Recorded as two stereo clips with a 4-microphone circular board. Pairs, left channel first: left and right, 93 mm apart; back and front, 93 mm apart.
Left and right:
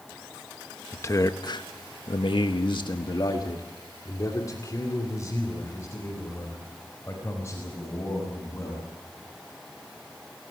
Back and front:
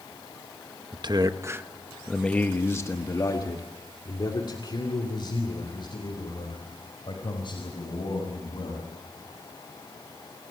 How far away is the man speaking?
About 1.1 m.